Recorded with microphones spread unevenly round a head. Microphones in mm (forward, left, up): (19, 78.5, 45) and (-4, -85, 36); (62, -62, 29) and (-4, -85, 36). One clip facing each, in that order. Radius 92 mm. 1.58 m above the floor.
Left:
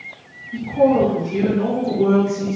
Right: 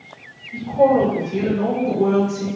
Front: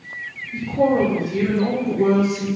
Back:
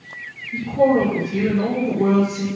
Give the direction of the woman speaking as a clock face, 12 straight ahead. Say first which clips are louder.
Even, back 2 dB; 7 o'clock.